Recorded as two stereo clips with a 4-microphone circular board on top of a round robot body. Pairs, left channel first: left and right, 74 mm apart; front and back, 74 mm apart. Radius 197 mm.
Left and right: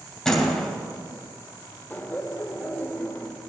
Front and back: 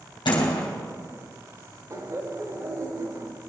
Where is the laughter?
150° left, 1.4 m.